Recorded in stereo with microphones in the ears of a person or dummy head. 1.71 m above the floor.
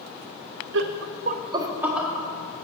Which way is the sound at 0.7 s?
70° right (ahead or behind).